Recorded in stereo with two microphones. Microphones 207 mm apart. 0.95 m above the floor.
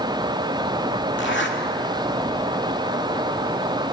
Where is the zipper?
65° left (ahead or behind), 2 m.